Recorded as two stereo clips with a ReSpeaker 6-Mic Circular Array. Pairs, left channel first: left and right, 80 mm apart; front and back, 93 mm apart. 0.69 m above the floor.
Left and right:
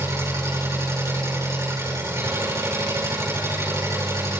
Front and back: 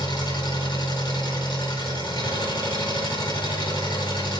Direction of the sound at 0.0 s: 40° right.